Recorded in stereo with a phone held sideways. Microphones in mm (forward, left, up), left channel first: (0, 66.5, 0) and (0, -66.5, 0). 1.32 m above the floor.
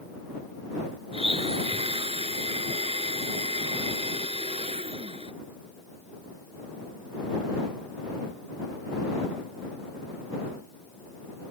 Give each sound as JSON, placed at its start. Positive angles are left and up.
{"t": 1.1, "sound": "a blender", "side_deg": -45}